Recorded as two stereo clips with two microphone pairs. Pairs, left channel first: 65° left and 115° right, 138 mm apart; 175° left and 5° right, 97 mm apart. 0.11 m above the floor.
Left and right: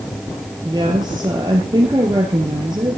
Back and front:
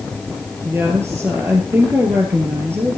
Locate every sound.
0.6 s a woman speaking: 65° right, 2.5 m